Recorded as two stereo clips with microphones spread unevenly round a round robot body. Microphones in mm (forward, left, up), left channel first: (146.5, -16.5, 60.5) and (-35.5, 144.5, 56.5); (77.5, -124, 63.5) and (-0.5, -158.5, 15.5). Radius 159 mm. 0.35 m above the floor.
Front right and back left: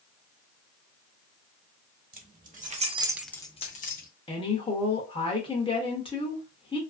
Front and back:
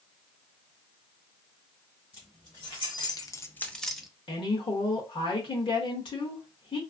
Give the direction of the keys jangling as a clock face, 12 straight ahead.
9 o'clock.